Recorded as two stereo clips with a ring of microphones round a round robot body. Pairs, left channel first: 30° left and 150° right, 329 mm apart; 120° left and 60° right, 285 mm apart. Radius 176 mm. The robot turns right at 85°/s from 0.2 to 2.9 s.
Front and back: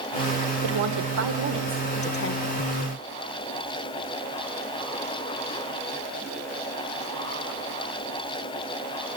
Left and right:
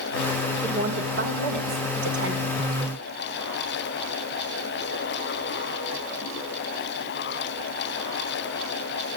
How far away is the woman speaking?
About 3 m.